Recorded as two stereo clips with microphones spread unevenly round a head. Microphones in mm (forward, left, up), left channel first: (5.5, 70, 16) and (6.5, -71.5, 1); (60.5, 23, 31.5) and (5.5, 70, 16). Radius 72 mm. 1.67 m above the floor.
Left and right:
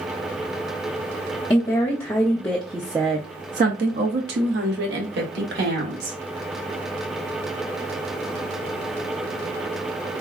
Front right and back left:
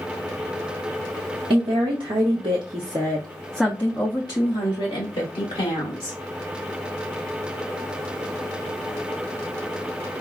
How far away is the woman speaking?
About 1.0 m.